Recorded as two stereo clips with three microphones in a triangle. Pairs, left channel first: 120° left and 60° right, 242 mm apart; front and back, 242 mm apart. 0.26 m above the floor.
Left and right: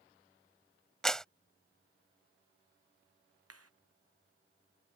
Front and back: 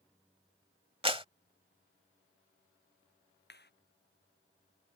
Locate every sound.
1.0 s a clap: 155° right
3.5 s a clap: 45° right